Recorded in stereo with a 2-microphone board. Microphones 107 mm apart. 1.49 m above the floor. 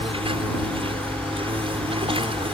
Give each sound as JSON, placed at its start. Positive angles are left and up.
{"t": 0.0, "sound": "an insect", "side_deg": -60}